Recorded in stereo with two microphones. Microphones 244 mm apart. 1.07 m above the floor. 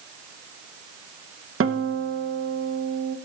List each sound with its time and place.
1.6 s a guitar: 60° right (ahead or behind), 0.8 m